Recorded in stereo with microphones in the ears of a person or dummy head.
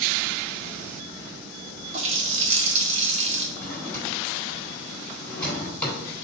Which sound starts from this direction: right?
A running tap, at 1.9 s.